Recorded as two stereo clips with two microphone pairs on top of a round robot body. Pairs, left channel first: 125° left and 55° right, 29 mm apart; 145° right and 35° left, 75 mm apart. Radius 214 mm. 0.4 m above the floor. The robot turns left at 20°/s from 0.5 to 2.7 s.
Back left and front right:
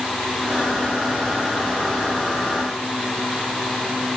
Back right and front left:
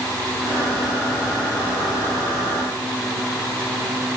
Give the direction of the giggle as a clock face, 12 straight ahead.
No giggle in this recording.